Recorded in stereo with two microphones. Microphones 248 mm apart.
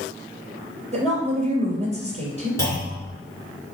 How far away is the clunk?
About 2.5 m.